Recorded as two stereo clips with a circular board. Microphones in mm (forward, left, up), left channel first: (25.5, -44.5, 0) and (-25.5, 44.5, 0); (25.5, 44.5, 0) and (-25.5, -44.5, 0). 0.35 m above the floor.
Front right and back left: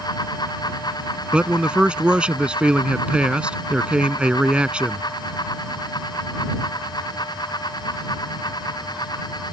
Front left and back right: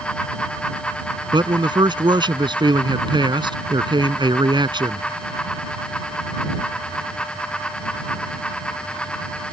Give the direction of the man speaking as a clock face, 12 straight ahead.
5 o'clock.